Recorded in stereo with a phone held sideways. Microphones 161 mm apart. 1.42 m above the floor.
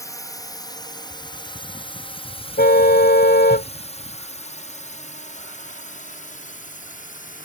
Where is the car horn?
75° left (ahead or behind).